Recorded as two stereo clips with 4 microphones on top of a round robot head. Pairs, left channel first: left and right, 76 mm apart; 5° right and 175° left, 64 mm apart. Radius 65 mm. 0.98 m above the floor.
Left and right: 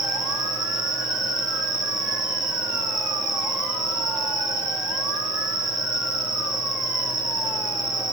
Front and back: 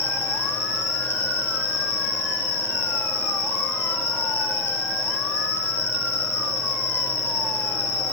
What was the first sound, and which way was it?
An insect, 60° right.